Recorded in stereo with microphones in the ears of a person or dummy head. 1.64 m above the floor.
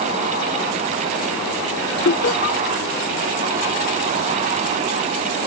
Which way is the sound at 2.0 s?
45° left (ahead or behind).